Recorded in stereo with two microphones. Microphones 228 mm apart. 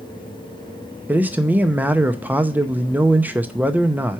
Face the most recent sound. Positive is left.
turn(degrees=-5)  # may be behind; listen again after turning